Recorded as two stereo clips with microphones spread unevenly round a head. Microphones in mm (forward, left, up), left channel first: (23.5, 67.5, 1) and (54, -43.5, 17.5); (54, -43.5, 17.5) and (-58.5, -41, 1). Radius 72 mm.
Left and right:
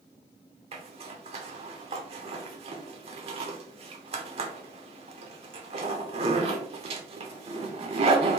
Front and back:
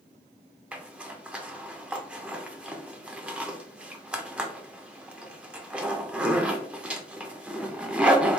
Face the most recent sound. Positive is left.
turn(degrees=-95)